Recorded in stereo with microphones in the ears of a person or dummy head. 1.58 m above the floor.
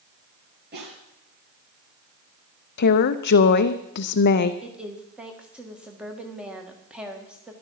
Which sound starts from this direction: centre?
A woman speaking, at 4.6 s.